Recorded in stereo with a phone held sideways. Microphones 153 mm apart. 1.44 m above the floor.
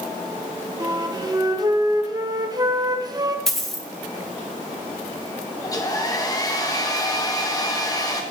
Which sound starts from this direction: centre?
A dropped coin, at 3.5 s.